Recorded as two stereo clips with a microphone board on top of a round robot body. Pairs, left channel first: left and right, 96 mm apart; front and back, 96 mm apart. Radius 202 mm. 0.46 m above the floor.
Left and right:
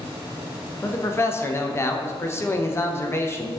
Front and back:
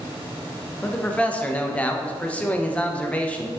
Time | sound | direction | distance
0.8 | a man speaking | 65° left | 0.7 m